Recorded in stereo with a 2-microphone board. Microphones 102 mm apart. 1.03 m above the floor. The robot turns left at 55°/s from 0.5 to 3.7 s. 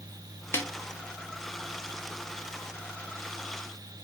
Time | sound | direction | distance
0.5 | a snare drum | 25° left (ahead or behind) | 0.5 m